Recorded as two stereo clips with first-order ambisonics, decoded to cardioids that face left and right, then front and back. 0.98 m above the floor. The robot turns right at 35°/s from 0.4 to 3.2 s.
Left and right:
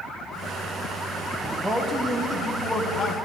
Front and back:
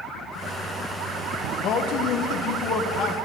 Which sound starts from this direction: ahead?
A man speaking, at 1.6 s.